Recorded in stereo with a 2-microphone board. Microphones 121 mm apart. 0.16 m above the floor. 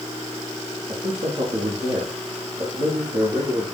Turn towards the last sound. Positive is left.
turn(degrees=-60)  # may be behind; listen again after turning